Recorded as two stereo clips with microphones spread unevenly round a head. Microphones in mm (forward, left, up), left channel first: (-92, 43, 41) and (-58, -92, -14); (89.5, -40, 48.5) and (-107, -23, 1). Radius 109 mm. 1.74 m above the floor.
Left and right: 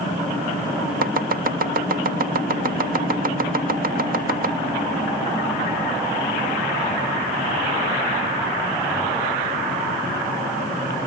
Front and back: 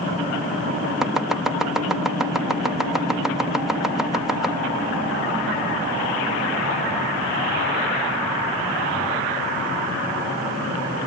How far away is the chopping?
About 1.3 m.